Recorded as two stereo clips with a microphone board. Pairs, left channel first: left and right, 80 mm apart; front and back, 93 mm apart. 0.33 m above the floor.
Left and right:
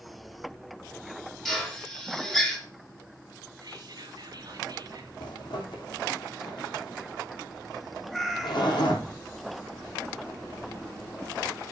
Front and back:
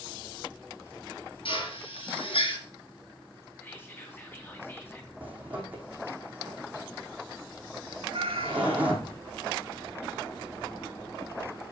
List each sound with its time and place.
1.4 s a drill: 5° left, 4.5 m
3.6 s whispering: 65° right, 3 m
5.2 s a zipper: 105° left, 3.5 m
8.1 s a cat meowing: 175° left, 2 m